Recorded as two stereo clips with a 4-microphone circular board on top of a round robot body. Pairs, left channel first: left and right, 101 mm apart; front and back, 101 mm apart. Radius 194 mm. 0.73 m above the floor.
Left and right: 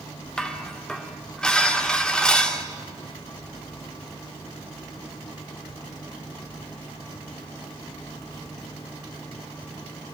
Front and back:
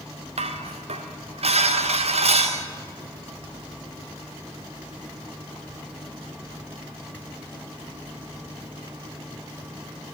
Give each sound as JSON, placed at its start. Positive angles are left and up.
{"t": 0.4, "sound": "dishes clattering", "azimuth_deg": 170, "distance_m": 1.9}